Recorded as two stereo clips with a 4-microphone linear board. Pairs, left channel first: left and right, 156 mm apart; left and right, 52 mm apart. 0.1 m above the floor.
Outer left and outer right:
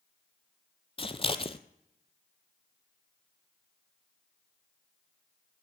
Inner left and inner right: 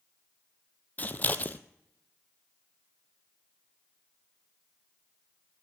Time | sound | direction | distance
1.0 | scissors | 35° left (ahead or behind) | 0.7 m